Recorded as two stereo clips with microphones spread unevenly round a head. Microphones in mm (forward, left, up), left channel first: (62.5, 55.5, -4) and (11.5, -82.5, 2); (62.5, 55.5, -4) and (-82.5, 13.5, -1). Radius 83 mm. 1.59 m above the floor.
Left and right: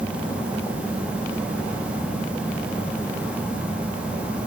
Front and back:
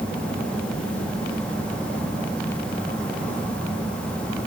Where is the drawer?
I don't hear a drawer.